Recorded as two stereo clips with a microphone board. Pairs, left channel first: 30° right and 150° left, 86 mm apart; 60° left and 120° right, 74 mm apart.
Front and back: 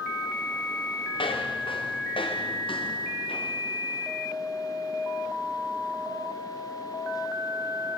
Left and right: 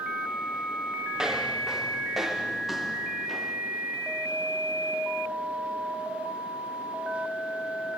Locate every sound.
1.1 s footsteps: 35° right, 7 m; by 3.6 s 25° right, 6 m